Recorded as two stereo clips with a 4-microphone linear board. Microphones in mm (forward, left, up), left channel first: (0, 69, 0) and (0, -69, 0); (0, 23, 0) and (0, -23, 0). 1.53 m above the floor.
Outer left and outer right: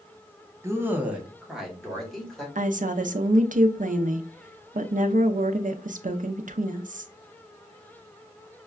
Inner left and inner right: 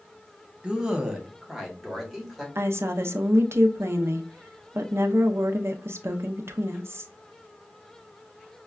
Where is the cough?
I don't hear a cough.